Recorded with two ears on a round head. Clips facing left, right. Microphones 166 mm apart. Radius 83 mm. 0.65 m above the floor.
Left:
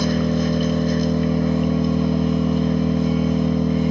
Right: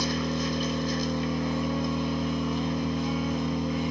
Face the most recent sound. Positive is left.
turn(degrees=45)  # may be behind; listen again after turning